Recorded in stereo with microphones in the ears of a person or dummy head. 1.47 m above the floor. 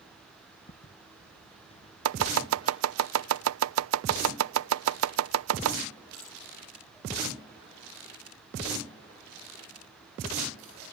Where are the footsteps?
40° left (ahead or behind); by 2.8 s 25° left (ahead or behind).